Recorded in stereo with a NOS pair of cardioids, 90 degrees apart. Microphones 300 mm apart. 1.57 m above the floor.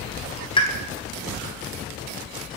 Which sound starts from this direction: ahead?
A pop, at 0.6 s.